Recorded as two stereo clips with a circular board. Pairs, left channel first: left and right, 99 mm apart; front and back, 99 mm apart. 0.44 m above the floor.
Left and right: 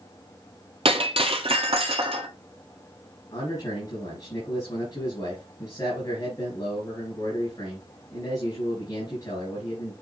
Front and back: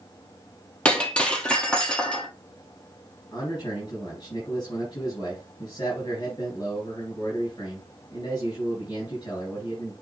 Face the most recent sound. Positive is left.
turn(degrees=45)